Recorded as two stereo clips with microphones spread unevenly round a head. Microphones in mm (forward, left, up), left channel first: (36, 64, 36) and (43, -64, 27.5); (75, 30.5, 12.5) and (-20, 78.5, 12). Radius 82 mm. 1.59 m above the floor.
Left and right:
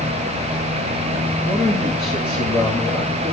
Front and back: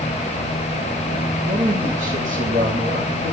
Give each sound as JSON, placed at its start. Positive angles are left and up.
{"t": 1.4, "sound": "a man speaking", "azimuth_deg": -175, "distance_m": 2.5}